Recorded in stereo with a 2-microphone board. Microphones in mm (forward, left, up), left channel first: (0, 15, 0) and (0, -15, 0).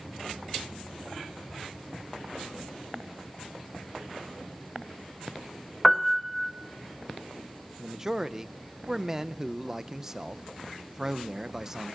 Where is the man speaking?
15° right (ahead or behind), 0.6 m.